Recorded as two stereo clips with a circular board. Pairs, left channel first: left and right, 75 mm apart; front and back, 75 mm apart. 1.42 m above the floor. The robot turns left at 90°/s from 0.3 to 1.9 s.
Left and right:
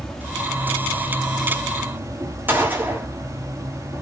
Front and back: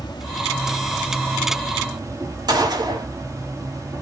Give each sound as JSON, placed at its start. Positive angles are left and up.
{"t": 0.0, "sound": "an insect", "azimuth_deg": 5, "distance_m": 2.5}
{"t": 2.5, "sound": "a gunshot", "azimuth_deg": -155, "distance_m": 3.0}